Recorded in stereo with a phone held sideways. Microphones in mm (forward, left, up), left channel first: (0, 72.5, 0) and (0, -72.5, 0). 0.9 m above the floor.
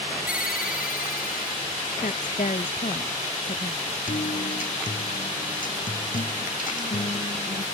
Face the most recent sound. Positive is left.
turn(degrees=65)  # may be behind; listen again after turning